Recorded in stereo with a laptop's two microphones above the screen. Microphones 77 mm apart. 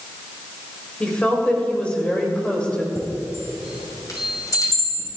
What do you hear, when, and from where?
1.0 s a woman speaking: 15° left (ahead or behind), 2.5 m
3.0 s a chime: 50° left (ahead or behind), 5.5 m